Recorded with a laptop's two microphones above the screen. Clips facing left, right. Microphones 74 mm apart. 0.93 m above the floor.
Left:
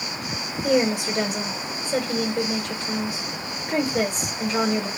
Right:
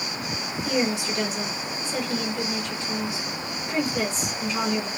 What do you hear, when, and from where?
0.6 s a woman speaking: 50° left (ahead or behind), 1.5 m